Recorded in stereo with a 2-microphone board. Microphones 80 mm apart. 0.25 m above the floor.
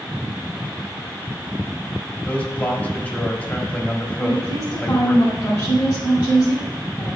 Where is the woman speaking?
50° left (ahead or behind), 2 m.